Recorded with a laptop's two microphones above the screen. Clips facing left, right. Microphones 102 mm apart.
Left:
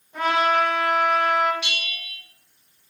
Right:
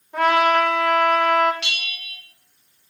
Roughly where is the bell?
Right.